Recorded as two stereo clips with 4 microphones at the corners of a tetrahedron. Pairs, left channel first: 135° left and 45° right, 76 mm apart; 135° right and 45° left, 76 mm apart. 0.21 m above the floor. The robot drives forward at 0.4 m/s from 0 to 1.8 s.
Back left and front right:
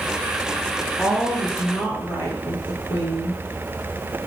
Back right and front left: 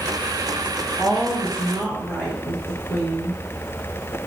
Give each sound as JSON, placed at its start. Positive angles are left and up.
{"t": 1.0, "sound": "a woman speaking", "azimuth_deg": 115, "distance_m": 1.0}